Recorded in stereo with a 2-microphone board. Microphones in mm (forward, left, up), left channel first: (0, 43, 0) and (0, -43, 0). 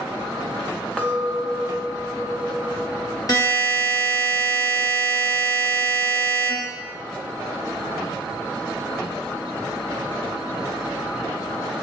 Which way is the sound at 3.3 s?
40° left (ahead or behind).